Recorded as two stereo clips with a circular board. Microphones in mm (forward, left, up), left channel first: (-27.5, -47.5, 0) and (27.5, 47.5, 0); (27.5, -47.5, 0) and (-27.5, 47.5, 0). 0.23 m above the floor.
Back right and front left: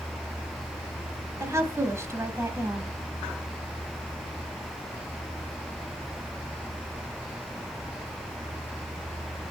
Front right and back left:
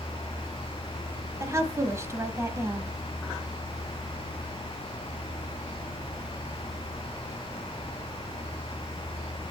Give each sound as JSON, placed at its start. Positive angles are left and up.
{"t": 1.4, "sound": "a woman speaking", "azimuth_deg": 90, "distance_m": 1.0}